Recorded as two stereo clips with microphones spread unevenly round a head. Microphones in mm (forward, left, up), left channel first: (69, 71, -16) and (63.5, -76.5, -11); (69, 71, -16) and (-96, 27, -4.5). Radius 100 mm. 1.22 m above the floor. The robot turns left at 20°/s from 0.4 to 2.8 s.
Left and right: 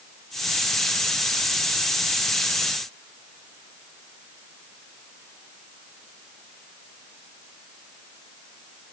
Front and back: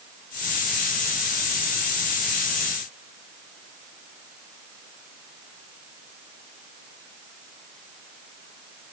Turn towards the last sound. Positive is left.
No sound to turn to.